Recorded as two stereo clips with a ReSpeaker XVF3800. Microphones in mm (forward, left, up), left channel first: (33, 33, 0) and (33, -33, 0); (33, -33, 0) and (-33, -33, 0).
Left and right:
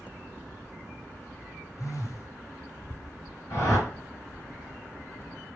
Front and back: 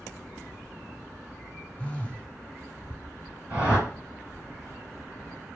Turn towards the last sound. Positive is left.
turn(degrees=115)